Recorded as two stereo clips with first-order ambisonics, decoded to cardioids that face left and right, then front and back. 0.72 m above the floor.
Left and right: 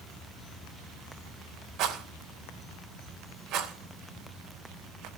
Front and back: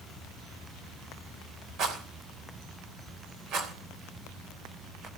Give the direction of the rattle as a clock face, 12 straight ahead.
5 o'clock.